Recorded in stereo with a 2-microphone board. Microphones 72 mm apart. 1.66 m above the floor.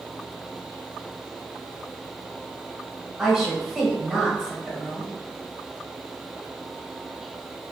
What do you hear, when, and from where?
3.2 s a woman speaking: 5° right (ahead or behind), 1.3 m